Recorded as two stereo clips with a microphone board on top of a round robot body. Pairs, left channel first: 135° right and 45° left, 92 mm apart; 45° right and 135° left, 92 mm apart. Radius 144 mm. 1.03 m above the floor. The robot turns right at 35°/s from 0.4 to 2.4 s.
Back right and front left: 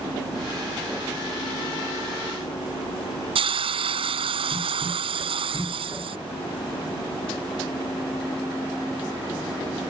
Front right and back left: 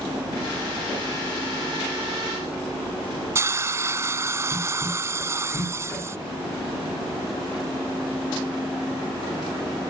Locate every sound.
3.4 s a hiss: 70° left